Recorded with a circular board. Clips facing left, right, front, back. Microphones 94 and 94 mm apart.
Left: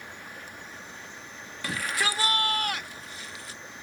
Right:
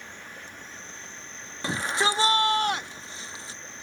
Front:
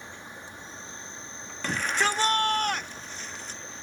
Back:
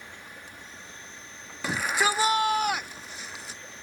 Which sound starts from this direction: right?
A shout, at 1.6 s.